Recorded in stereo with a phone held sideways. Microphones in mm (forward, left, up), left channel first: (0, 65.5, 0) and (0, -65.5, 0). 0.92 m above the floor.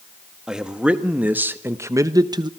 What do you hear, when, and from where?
0.5 s a man speaking: 5° right (ahead or behind), 1.5 m; by 2.5 s 35° right (ahead or behind), 0.8 m